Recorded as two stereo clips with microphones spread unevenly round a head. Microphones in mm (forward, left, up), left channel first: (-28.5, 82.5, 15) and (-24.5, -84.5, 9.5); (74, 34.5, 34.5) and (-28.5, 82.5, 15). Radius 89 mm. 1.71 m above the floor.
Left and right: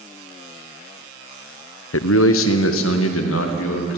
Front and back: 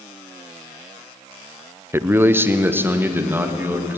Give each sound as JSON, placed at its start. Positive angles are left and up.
{"t": 1.9, "sound": "a man speaking", "azimuth_deg": 85, "distance_m": 0.8}